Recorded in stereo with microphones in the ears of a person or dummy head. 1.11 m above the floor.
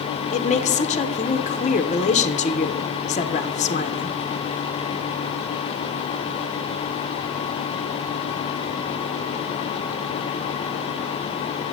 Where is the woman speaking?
25° left (ahead or behind), 0.7 m.